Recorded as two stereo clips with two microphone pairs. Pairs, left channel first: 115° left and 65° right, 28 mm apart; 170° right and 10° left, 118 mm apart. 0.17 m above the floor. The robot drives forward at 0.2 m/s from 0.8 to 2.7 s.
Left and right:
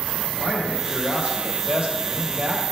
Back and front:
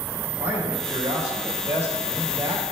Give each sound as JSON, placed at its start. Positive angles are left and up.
{"t": 0.4, "sound": "a man speaking", "azimuth_deg": -55, "distance_m": 3.0}